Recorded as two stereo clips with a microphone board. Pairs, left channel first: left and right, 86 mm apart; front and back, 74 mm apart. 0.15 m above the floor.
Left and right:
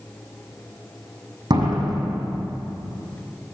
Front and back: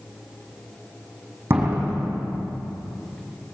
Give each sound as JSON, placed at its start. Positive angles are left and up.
{"t": 1.5, "sound": "a door slam", "azimuth_deg": -120, "distance_m": 6.5}